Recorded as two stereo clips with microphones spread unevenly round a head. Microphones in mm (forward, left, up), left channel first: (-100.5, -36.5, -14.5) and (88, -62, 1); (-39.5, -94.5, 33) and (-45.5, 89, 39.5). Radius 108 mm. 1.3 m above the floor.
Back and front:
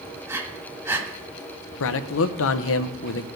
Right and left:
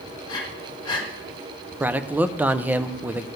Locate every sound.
0.3 s breathing: 50° right, 1.2 m
1.8 s a man speaking: 175° left, 0.6 m